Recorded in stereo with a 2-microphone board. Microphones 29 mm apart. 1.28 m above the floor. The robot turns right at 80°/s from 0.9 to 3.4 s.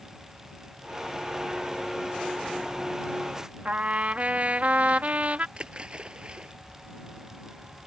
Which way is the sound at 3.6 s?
55° right (ahead or behind).